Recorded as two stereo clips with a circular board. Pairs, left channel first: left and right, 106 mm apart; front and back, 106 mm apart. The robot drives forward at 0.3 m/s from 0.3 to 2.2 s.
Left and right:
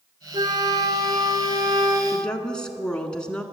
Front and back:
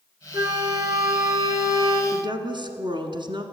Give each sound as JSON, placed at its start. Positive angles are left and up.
{"t": 0.3, "sound": "a flute", "azimuth_deg": -120, "distance_m": 1.5}
{"t": 2.1, "sound": "a woman speaking", "azimuth_deg": 170, "distance_m": 1.4}